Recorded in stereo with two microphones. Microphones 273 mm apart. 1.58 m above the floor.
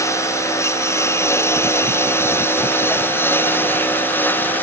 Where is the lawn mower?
10° left (ahead or behind); by 4.6 s 5° left (ahead or behind).